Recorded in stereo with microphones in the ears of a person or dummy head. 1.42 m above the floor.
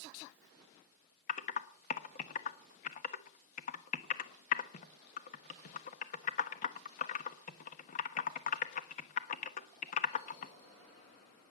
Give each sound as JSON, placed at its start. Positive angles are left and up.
{"t": 1.3, "sound": "typing on a keyboard", "side_deg": 40, "distance_m": 1.2}